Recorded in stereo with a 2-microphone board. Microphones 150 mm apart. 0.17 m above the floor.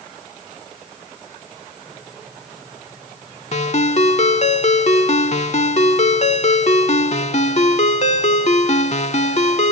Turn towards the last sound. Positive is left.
turn(degrees=50)  # may be behind; listen again after turning